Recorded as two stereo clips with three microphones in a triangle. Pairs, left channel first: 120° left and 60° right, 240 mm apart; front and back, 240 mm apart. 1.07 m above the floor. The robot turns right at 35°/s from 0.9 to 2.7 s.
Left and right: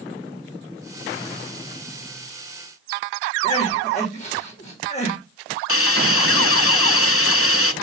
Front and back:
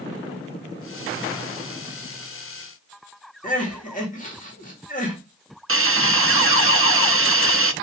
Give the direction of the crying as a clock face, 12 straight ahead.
10 o'clock.